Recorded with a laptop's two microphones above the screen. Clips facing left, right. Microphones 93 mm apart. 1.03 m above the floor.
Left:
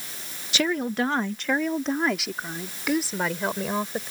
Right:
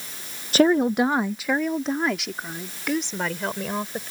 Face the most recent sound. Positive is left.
turn(degrees=5)  # may be behind; listen again after turning